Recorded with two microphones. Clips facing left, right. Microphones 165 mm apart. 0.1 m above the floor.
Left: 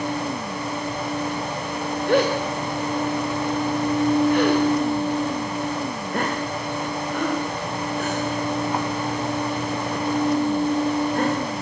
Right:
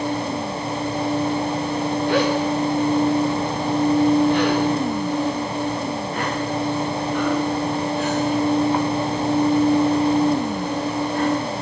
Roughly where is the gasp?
Left.